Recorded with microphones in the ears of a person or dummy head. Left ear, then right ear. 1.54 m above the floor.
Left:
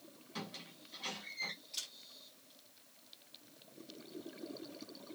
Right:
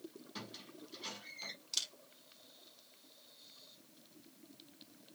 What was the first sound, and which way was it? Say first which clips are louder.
A squeak: left 4 dB; 5° left (ahead or behind).